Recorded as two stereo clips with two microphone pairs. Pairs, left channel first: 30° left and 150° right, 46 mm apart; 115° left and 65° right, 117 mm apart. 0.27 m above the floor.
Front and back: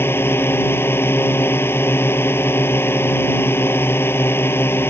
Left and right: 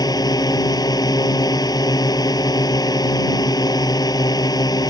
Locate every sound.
0.0 s a drone: 60° left